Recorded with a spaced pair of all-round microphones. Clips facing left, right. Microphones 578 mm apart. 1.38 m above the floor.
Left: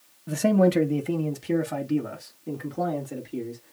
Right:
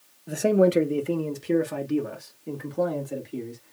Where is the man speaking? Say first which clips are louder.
Right 1 dB; 30° left (ahead or behind), 0.7 m; by 3.7 s centre (ahead or behind), 2.5 m.